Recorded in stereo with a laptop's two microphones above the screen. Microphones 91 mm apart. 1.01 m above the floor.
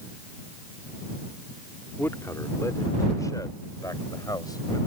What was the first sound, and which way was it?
A man speaking, 30° left (ahead or behind).